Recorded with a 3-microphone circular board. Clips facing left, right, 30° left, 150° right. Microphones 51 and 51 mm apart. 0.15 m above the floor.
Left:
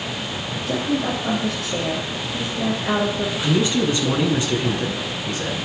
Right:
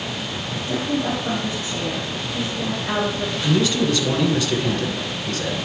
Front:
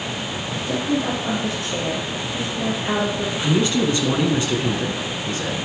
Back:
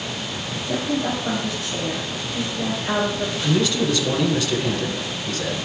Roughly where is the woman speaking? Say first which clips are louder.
Left 1 dB, front 1 dB; left.